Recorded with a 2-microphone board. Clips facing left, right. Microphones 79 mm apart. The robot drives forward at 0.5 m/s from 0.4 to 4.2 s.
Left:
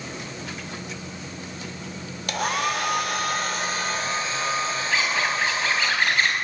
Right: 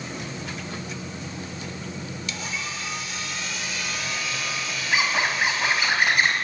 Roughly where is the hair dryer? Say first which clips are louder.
Left 12 dB; left.